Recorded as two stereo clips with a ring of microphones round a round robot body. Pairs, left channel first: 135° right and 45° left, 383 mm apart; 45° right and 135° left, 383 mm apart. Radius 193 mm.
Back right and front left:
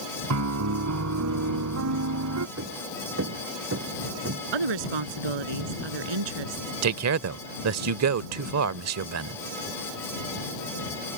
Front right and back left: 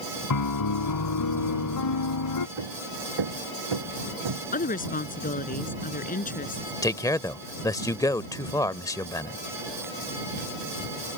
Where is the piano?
5° right.